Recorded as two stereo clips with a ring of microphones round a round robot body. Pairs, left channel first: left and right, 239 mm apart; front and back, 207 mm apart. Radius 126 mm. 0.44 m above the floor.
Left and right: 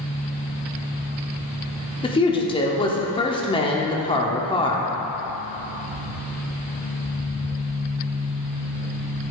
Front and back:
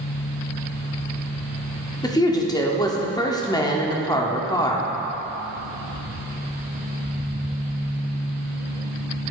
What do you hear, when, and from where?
2.0 s a woman speaking: 50° left, 1.1 m